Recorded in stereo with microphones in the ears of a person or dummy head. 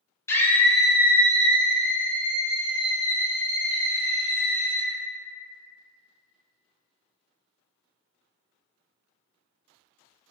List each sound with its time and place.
0.3 s a scream: 15° left (ahead or behind), 0.8 m; by 4.9 s 55° right (ahead or behind), 2 m